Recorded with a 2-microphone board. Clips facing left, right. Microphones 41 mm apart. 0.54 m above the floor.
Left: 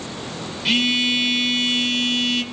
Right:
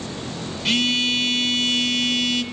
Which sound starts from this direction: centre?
A phone buzzing, at 0.7 s.